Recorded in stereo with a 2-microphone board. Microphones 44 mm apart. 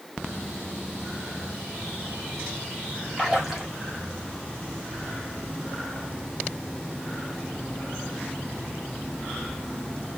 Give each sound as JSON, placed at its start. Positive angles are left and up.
{"t": 3.2, "sound": "a splash", "side_deg": -5, "distance_m": 1.4}